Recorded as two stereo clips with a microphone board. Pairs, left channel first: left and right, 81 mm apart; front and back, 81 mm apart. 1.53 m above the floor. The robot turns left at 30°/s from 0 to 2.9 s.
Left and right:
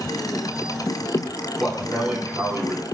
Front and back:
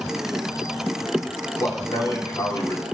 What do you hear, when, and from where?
1.6 s a man speaking: 5° right, 1.8 m; by 2.8 s 45° right, 1.8 m